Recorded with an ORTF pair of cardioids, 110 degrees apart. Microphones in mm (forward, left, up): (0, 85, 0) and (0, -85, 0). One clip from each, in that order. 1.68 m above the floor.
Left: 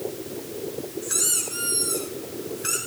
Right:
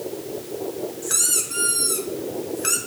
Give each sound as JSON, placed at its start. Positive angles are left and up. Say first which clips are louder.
{"t": 1.0, "sound": "a squeak", "louder": "right 2 dB", "azimuth_deg": -30, "distance_m": 5.0}